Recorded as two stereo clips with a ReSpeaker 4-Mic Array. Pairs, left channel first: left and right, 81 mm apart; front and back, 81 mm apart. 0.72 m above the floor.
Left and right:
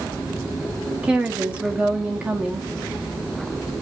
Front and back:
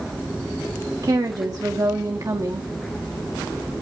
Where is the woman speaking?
160° right, 1.3 m.